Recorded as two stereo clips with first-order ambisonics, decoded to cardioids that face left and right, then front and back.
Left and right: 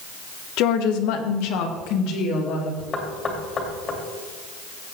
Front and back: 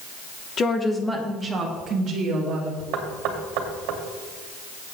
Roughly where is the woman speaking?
Ahead left.